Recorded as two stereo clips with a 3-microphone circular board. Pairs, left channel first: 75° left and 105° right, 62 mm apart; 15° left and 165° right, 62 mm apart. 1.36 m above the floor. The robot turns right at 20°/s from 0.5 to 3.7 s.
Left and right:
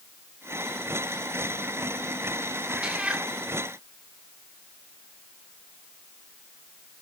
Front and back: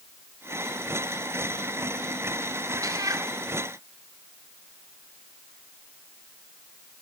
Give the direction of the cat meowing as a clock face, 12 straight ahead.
6 o'clock.